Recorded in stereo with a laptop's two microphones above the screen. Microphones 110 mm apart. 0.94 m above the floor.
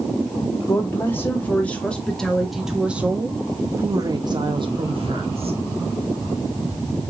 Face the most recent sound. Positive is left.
turn(degrees=-65)  # may be behind; listen again after turning